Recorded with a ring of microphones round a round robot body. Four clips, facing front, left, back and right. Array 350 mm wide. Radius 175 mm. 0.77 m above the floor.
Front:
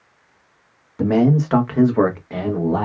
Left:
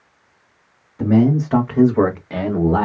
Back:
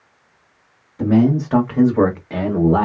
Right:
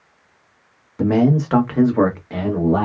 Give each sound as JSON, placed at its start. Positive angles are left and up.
{"t": 1.0, "sound": "a man speaking", "azimuth_deg": -45, "distance_m": 1.3}